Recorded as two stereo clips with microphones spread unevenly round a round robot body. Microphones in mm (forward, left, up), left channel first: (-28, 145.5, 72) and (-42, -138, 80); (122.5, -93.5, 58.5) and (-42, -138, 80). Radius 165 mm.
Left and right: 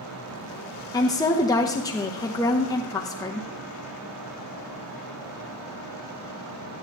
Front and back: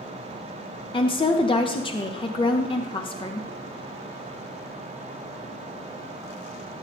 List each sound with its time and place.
0.9 s a woman speaking: 20° left, 0.8 m